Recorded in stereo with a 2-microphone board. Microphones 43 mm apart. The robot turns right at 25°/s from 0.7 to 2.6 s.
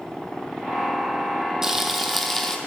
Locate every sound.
1.6 s frying: 10° right (ahead or behind), 0.9 m; by 2.6 s 15° left (ahead or behind), 0.9 m